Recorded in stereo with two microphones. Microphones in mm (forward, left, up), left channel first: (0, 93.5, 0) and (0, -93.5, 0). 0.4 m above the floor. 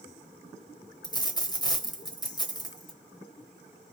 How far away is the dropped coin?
About 1.0 m.